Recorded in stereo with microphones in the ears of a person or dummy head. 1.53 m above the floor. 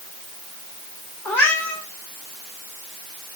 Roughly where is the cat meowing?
Centre.